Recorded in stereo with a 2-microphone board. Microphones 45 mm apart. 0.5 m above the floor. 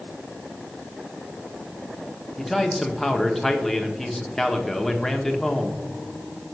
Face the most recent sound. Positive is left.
turn(degrees=5)  # may be behind; listen again after turning